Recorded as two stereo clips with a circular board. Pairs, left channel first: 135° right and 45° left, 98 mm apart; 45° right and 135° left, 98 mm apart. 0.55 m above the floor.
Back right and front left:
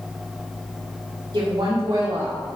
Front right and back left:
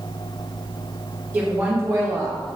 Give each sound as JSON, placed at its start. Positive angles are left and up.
{"t": 1.3, "sound": "a woman speaking", "azimuth_deg": 70, "distance_m": 1.8}